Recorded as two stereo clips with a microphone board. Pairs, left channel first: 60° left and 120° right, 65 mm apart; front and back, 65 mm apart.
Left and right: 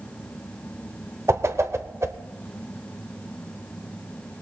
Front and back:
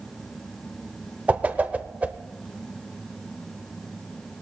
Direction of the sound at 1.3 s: 120° right.